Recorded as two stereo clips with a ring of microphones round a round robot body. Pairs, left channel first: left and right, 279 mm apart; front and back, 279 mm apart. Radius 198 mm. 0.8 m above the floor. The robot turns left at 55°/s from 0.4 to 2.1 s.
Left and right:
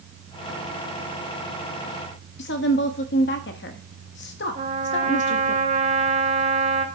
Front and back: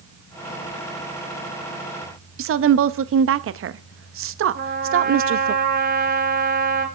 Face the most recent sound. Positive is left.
turn(degrees=-145)